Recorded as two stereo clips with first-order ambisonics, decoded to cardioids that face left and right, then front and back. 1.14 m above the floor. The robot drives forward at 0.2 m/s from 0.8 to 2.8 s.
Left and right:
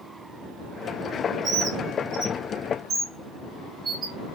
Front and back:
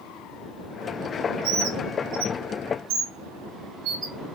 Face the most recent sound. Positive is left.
turn(degrees=-155)